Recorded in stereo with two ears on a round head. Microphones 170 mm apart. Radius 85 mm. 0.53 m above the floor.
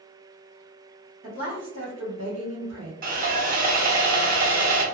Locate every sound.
1.2 s a woman speaking: 45° right (ahead or behind), 1.7 m
3.0 s sawing: 45° right (ahead or behind), 1.1 m